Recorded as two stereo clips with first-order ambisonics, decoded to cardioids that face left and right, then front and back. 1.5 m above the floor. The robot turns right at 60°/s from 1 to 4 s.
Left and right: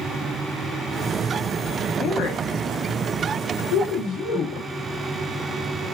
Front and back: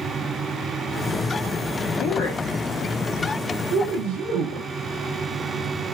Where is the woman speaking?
35° left, 0.9 m; by 4.7 s 155° left, 0.9 m.